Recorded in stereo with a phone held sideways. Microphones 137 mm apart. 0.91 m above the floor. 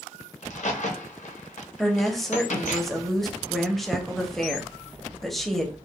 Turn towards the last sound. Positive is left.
turn(degrees=0)  # may be behind; listen again after turning